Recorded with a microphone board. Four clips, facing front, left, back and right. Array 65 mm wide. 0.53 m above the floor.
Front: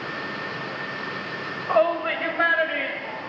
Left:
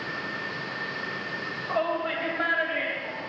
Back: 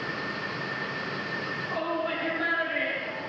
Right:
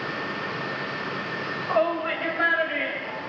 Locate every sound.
1.7 s a shout: 15° right, 2 m; by 3.3 s 5° right, 3 m